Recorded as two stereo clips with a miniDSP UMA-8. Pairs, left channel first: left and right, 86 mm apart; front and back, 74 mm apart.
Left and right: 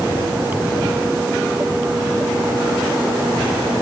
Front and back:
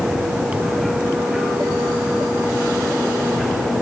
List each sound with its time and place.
Only background noise.